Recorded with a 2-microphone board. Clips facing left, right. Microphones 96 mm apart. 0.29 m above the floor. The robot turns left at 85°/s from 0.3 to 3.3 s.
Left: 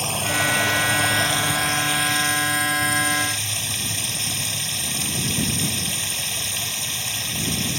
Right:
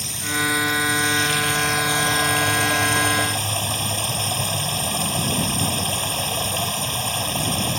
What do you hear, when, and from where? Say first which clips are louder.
0.0 s running water: left 2 dB; 120° left; by 7.8 s 135° right